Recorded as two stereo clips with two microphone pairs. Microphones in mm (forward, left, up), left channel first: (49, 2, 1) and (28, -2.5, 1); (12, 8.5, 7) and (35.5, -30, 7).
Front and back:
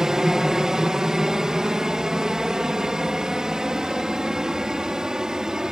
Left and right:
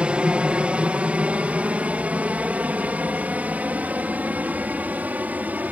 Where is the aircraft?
115° right; by 5.7 s 110° right.